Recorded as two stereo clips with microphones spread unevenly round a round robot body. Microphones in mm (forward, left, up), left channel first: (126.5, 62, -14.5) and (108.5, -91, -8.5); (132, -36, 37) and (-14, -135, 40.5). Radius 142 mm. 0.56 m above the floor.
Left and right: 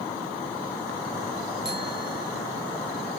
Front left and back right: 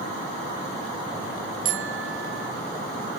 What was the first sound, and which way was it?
A bicycle bell, 145° right.